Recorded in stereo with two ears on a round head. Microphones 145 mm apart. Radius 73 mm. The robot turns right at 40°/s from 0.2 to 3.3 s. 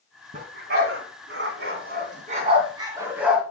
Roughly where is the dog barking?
Right.